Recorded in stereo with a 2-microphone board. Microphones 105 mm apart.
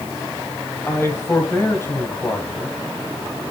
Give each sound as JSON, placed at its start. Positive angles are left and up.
{"t": 0.9, "sound": "a man speaking", "side_deg": 25, "distance_m": 2.5}